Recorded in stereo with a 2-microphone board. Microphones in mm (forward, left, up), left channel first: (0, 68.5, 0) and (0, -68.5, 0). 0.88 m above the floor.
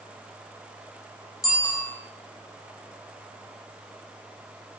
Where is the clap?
No clap in this recording.